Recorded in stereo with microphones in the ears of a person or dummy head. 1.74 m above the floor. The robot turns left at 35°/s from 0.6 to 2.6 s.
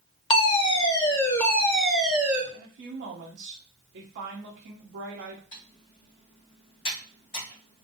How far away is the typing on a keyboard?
About 1.7 m.